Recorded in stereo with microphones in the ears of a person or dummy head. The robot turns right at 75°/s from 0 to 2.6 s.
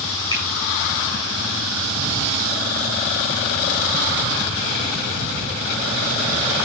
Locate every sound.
0.3 s a finger snap: 20° left (ahead or behind), 8 m; by 0.5 s 5° left (ahead or behind), 8 m